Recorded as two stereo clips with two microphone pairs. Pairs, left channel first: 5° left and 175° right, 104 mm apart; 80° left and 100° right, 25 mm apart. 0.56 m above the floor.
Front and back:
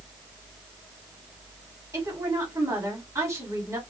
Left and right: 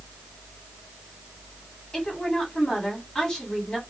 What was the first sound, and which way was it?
A woman speaking, 135° left.